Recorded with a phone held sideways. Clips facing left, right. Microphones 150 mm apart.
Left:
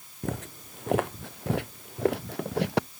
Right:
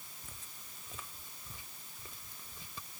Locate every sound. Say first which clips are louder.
0.2 s footsteps: left 28 dB; 75° left (ahead or behind); by 2.9 s 80° left